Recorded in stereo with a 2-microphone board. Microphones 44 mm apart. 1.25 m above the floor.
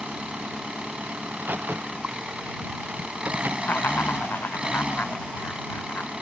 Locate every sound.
0.0 s an engine running: 25° right (ahead or behind)
1.2 s a crack: 45° right (ahead or behind)
3.6 s laughter: 50° left (ahead or behind)